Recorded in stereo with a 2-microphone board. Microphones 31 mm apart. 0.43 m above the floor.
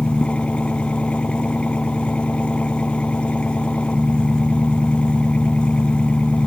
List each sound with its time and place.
0.0 s an engine running: 45° left (ahead or behind)